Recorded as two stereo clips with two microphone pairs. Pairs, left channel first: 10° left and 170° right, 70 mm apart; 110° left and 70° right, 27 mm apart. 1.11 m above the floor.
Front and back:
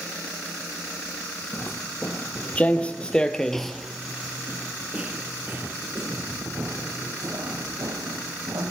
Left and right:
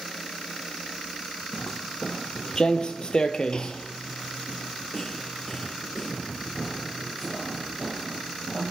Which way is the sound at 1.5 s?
65° left.